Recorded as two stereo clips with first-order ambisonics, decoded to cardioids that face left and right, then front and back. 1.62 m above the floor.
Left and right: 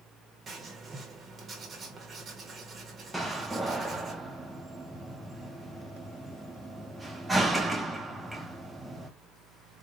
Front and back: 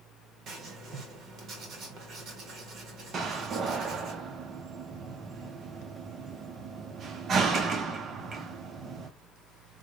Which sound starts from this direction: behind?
A door slam, at 3.1 s.